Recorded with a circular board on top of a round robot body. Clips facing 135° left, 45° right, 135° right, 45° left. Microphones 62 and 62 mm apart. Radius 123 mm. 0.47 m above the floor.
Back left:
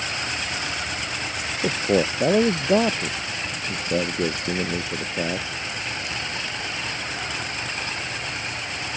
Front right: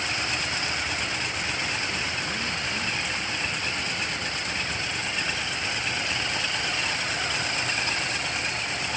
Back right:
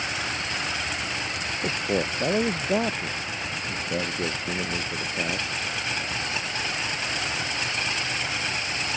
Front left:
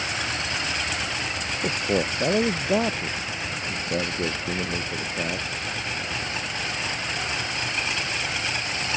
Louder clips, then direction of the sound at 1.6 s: Back left 8 dB, front left 2 dB; 130° left.